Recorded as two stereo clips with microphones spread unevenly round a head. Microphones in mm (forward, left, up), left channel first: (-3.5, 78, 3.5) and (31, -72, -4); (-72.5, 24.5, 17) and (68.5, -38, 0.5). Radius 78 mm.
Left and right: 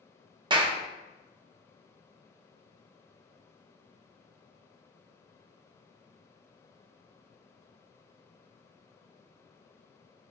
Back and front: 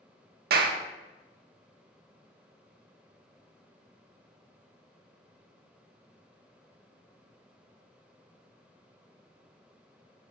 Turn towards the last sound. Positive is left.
turn(degrees=-20)